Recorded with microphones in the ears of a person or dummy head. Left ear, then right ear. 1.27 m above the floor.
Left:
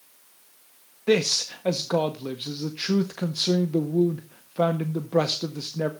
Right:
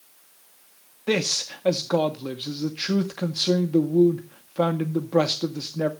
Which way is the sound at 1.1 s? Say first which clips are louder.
Left 2 dB; 5° right (ahead or behind).